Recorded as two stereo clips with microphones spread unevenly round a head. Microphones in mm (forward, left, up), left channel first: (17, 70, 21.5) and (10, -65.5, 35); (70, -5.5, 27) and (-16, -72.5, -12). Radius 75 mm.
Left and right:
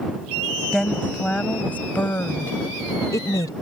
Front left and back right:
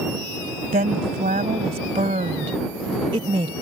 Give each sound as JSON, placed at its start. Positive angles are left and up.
{"t": 0.7, "sound": "a woman speaking", "azimuth_deg": 175}